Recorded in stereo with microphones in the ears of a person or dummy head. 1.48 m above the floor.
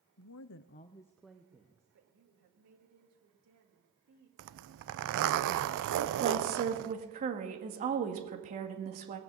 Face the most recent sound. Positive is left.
turn(degrees=-40)  # may be behind; listen again after turning